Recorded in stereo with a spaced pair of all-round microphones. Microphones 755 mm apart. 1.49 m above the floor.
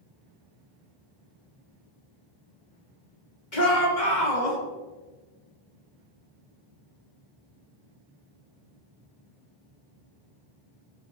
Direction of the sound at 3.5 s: 75° left (ahead or behind).